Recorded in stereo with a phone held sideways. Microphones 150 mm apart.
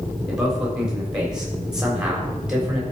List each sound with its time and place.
0.3 s a man speaking: 5° right (ahead or behind), 3.5 m